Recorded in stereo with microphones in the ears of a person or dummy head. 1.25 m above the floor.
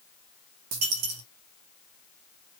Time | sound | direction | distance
0.7 | a dropped coin | 45° right (ahead or behind) | 1.2 m